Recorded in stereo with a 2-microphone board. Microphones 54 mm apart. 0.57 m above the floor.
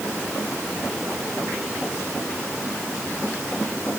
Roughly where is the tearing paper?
I don't hear tearing paper.